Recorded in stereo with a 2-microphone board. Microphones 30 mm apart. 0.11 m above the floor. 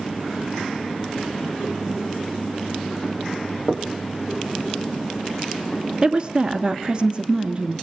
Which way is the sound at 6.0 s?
25° right (ahead or behind).